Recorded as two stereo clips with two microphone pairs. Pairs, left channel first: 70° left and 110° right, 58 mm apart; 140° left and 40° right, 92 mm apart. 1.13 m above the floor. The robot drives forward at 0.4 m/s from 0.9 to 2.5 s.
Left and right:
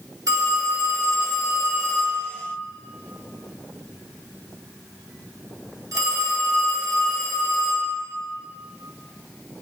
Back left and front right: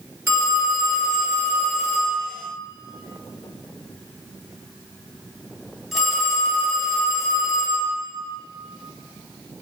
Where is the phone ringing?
100° right, 1.4 m; by 7.9 s 125° right, 1.6 m.